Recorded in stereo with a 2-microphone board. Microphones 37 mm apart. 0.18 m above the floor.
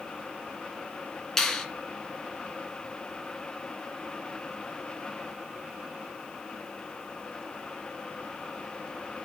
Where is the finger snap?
10° left (ahead or behind), 2 m.